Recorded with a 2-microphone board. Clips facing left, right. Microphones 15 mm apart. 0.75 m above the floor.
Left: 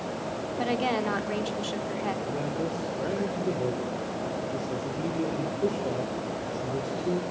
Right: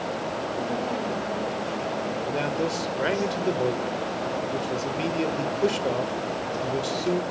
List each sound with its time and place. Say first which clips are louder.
0.6 s a woman speaking: left 4 dB; 65° left (ahead or behind), 2 m
2.2 s a man speaking: right 4 dB; 60° right (ahead or behind), 2 m